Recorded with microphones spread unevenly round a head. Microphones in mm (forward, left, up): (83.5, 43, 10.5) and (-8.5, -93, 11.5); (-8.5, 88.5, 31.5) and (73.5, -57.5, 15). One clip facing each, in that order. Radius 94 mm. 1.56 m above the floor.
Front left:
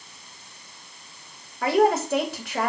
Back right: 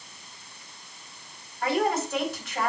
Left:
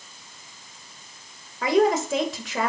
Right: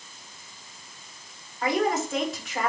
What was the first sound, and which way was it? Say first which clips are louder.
A woman speaking: front left 6 dB, left 5 dB; 100° left.